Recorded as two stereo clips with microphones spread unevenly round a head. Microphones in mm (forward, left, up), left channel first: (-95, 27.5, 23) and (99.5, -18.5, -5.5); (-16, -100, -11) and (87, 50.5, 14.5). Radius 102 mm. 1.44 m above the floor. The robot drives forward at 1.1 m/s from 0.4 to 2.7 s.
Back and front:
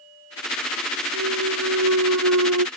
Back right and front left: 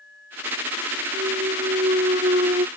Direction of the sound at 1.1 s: Straight ahead.